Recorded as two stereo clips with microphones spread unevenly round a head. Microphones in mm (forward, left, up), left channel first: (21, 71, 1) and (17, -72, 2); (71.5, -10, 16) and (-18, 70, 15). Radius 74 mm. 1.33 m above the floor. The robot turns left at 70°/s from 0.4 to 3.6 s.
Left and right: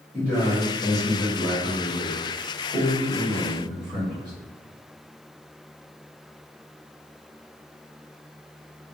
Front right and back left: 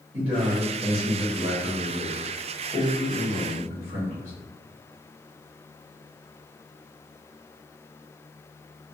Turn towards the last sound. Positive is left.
turn(degrees=-30)